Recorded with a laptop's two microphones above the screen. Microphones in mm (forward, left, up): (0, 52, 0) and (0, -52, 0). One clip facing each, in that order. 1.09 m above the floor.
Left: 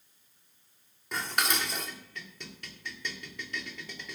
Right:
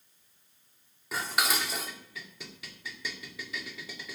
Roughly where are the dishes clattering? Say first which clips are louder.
Right 1 dB; centre.